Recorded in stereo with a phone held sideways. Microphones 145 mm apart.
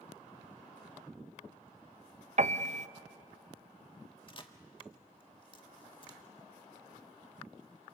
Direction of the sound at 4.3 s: 35° left (ahead or behind).